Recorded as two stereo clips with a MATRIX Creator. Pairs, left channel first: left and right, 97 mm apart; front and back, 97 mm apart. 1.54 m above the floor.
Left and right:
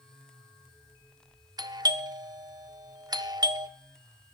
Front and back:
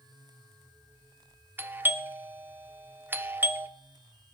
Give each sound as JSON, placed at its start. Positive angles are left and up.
{"t": 1.6, "sound": "a doorbell", "azimuth_deg": -120, "distance_m": 0.8}